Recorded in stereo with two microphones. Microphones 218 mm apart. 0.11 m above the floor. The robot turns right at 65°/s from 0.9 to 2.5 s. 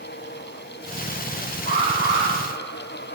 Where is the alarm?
105° right, 5 m; by 2.3 s 65° right, 5 m.